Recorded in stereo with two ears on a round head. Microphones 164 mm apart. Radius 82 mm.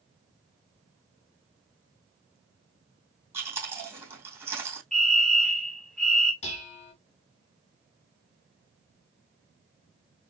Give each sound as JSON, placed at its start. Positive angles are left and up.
{"t": 3.3, "sound": "chewing", "side_deg": -15, "distance_m": 4.0}
{"t": 4.9, "sound": "a fire alarm", "side_deg": 5, "distance_m": 1.8}
{"t": 6.4, "sound": "dishes clattering", "side_deg": 35, "distance_m": 2.0}